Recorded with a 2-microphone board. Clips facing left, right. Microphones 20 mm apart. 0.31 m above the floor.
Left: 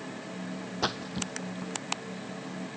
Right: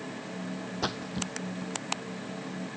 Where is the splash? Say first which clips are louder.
Left 2 dB; 15° left (ahead or behind).